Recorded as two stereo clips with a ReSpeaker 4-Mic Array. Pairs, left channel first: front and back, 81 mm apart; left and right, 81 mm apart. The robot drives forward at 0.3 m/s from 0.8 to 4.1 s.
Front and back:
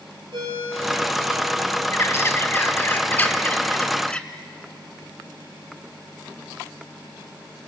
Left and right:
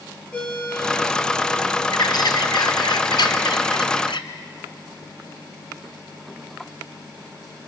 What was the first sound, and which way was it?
A ringtone, 165° left.